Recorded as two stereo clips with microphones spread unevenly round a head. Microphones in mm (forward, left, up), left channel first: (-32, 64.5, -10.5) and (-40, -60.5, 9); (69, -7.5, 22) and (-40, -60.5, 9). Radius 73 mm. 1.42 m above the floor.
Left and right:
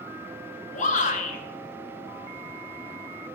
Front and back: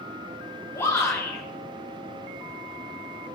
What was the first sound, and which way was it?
A shout, 100° left.